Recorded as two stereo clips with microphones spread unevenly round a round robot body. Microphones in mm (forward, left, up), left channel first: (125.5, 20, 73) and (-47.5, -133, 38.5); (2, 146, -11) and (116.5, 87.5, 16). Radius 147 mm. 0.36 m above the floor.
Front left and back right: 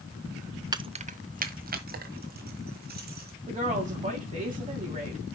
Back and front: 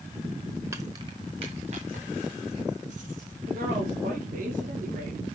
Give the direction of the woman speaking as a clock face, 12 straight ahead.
3 o'clock.